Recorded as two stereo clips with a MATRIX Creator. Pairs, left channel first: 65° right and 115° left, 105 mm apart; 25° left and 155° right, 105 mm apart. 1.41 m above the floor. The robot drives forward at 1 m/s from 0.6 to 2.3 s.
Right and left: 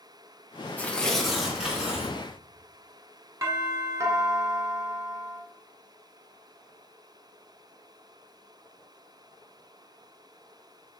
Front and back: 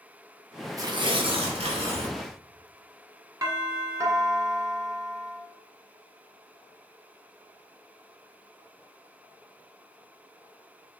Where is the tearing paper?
130° right, 0.8 m; by 2.2 s 170° right, 1.8 m.